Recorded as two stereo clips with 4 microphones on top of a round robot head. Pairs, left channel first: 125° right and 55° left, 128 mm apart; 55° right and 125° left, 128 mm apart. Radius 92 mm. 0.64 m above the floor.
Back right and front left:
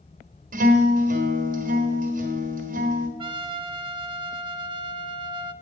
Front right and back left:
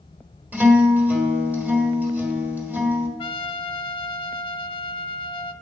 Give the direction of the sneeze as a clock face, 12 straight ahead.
I don't hear a sneeze.